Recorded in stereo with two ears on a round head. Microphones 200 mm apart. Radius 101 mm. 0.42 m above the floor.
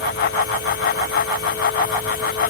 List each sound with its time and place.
Only background noise.